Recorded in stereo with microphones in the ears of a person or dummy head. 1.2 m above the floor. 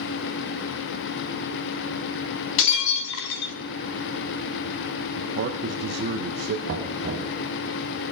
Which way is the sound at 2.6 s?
85° left.